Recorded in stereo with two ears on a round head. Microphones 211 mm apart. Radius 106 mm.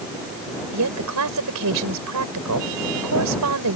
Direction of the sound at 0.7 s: 85° right.